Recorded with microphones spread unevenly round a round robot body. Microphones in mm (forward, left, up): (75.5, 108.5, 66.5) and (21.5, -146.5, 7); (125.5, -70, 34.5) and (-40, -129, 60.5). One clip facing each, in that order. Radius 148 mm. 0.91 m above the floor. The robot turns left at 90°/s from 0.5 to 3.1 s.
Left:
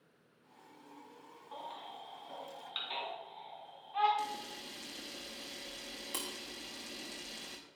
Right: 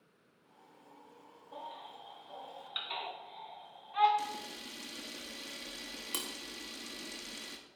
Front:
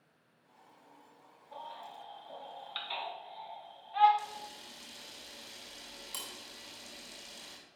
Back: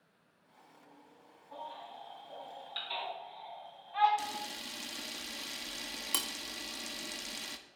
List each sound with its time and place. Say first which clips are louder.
1.5 s a baby crying: even, back 1 dB; 105° left, 3 m; by 4.1 s 40° right, 3 m
4.2 s a camera shutter: even, back 4 dB; straight behind, 0.7 m